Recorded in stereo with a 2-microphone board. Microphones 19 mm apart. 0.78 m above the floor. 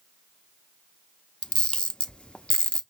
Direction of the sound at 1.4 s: 65° left (ahead or behind).